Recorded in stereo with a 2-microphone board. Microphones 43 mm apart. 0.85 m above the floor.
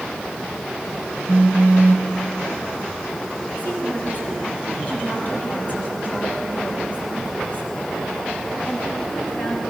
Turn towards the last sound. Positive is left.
turn(degrees=40)  # may be behind; listen again after turning